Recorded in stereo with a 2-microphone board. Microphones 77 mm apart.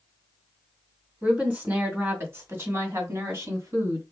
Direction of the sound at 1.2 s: 20° right (ahead or behind).